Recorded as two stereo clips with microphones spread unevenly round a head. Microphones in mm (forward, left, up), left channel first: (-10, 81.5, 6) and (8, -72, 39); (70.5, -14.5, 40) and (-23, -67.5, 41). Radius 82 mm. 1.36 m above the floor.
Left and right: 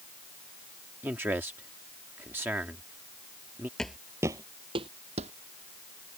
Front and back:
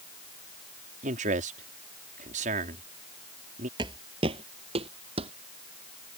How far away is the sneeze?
I don't hear a sneeze.